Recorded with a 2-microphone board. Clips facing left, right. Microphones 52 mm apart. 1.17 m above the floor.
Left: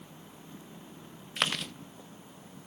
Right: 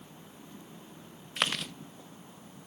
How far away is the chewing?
About 0.5 m.